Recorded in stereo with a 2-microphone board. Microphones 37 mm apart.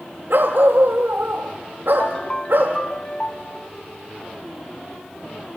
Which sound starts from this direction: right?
A dog barking, at 0.3 s.